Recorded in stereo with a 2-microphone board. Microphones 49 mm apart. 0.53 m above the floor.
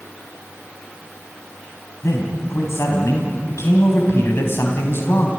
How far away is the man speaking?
About 3.5 m.